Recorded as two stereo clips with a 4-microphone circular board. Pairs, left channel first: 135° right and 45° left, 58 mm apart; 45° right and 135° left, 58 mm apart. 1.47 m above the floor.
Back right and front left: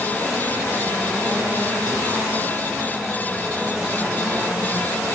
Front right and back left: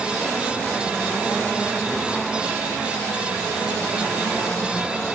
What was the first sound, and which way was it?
Only background noise.